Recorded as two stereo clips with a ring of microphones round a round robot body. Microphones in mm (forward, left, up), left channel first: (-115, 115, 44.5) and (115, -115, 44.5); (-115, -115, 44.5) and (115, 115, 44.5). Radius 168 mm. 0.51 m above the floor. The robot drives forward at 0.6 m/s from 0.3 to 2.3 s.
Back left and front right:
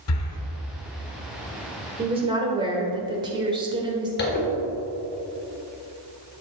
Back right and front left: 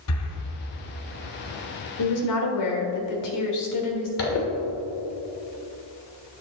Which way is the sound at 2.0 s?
115° right.